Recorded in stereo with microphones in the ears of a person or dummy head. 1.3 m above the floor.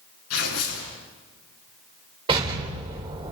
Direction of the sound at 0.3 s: 75° left (ahead or behind).